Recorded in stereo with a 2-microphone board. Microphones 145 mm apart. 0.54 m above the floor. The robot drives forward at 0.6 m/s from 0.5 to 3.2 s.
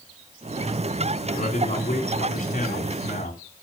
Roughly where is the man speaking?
Left.